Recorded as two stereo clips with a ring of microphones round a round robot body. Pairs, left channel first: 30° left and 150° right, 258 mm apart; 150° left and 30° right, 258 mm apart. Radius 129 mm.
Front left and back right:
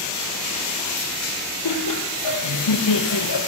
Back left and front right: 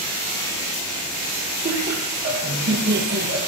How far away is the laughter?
About 6 m.